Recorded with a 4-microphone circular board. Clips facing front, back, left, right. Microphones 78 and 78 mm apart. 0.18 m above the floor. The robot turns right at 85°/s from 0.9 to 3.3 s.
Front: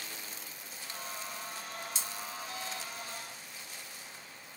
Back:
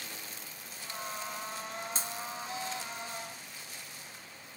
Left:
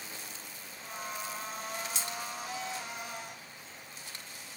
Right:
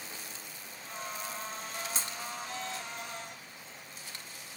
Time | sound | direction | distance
1.9 | breaking glass | 140° right | 0.7 m